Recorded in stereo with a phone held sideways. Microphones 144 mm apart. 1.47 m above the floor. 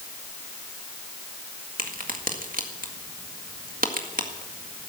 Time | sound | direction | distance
1.8 | a crack | 80° right | 1.7 m